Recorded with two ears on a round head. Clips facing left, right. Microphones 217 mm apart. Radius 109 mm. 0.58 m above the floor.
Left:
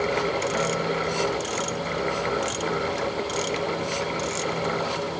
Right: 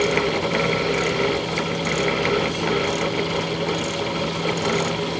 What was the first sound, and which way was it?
Only background noise.